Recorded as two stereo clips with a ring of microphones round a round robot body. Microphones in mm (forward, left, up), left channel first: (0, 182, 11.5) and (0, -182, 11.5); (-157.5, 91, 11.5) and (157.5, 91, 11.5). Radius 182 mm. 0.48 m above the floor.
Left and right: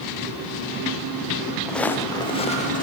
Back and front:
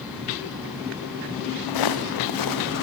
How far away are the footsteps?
About 3 m.